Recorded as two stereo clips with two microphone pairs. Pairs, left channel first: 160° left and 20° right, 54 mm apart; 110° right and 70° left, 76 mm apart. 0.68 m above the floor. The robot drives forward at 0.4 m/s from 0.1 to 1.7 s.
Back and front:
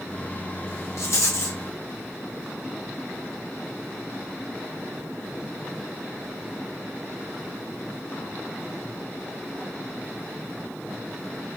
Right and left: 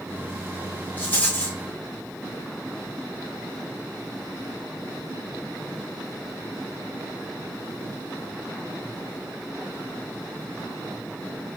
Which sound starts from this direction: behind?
A rattle, at 1.0 s.